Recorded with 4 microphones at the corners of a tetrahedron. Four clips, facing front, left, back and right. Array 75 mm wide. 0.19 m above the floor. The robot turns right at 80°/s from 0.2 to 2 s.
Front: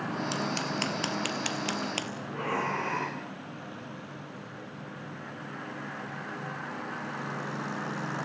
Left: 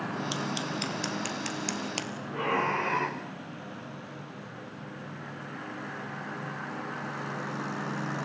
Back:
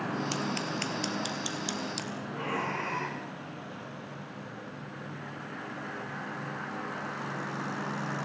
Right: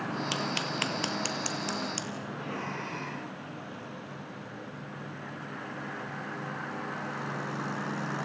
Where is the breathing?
60° left, 4 m.